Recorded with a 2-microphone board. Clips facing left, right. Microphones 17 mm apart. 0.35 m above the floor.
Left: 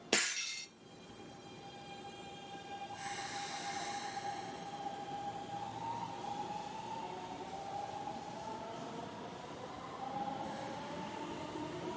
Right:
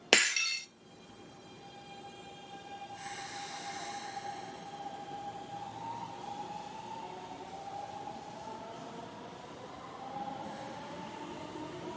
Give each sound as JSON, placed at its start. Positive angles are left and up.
{"t": 0.1, "sound": "breaking glass", "side_deg": -50, "distance_m": 1.0}